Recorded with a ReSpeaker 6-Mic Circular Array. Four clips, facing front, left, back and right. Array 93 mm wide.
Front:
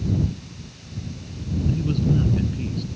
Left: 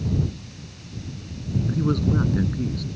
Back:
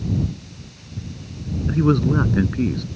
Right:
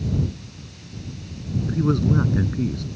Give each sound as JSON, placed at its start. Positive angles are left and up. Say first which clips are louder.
{"t": 1.7, "sound": "a man speaking", "louder": "right 2 dB, back 6 dB", "azimuth_deg": -170}